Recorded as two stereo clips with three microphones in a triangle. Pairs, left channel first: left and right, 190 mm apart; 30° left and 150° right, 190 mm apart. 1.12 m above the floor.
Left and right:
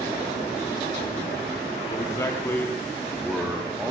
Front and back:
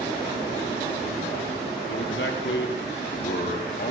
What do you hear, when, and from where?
1.9 s a man speaking: 20° left, 2.0 m; by 3.9 s 10° right, 1.7 m